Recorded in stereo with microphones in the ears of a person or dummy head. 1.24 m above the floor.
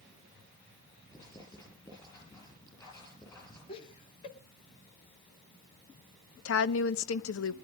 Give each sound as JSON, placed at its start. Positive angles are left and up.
{"t": 1.1, "sound": "writing", "side_deg": 25, "distance_m": 9.5}
{"t": 3.7, "sound": "laughter", "side_deg": 30, "distance_m": 2.5}
{"t": 6.5, "sound": "a woman speaking", "side_deg": 85, "distance_m": 0.9}